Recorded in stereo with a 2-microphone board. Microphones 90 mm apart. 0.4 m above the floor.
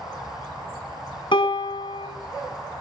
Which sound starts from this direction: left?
A piano, at 1.3 s.